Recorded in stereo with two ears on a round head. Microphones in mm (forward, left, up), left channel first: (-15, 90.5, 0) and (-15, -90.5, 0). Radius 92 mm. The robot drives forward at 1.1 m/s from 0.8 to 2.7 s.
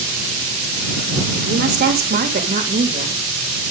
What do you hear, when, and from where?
1.4 s a woman speaking: 60° right (ahead or behind), 2.5 m; by 3.2 s 40° right (ahead or behind), 3 m